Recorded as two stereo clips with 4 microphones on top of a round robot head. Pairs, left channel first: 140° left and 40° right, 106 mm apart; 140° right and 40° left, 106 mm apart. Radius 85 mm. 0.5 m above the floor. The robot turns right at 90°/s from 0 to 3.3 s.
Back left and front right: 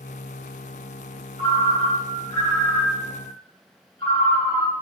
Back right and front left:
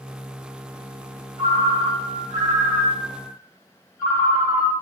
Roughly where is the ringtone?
Ahead.